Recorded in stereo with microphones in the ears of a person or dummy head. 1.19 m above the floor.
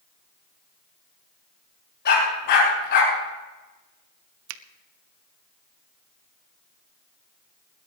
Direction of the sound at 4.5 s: 70° right (ahead or behind).